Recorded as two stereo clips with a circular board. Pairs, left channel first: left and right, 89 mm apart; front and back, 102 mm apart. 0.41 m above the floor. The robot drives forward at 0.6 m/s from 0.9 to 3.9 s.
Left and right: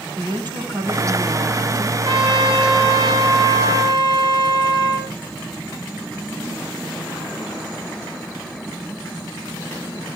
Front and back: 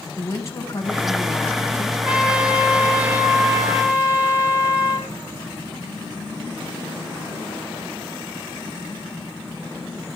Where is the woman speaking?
55° right, 3 m; by 1.9 s 70° right, 3 m.